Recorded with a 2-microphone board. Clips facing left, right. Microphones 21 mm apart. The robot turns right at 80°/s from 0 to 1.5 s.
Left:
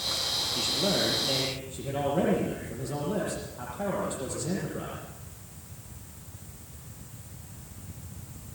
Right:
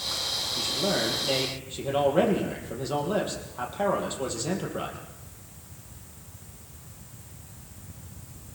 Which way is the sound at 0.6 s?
145° left.